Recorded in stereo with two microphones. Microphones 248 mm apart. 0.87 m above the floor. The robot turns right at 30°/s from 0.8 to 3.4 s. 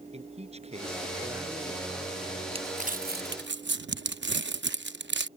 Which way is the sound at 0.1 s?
25° right.